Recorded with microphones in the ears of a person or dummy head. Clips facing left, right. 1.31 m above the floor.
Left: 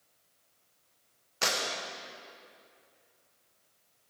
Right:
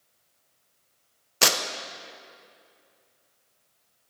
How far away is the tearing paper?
About 0.7 m.